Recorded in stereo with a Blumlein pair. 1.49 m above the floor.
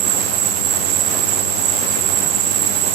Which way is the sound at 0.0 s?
40° right.